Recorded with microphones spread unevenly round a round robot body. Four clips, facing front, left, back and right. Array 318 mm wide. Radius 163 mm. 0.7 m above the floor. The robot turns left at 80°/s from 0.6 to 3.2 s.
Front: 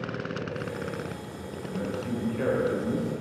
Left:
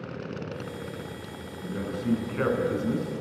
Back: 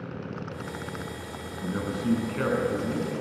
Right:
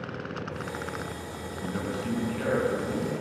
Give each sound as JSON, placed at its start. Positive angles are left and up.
{"t": 1.6, "sound": "a man speaking", "azimuth_deg": -160, "distance_m": 9.0}